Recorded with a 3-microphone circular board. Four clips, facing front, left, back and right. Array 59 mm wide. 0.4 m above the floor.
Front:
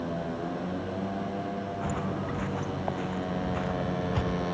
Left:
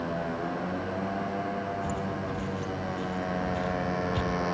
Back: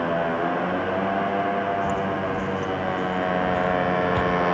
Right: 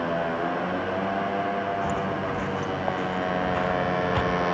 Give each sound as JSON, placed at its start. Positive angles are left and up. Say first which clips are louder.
{"t": 0.0, "sound": "a motorcycle", "louder": "right 5 dB, back 10 dB", "azimuth_deg": -160}
{"t": 1.8, "sound": "footsteps", "louder": "right 5 dB, back 8 dB", "azimuth_deg": -55}